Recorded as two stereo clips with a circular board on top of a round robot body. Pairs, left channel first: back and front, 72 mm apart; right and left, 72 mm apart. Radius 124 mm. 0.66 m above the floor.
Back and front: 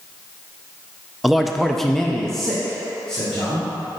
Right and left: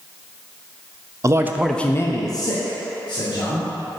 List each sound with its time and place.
1.2 s a man speaking: 85° left, 0.7 m; by 3.7 s 95° right, 1.9 m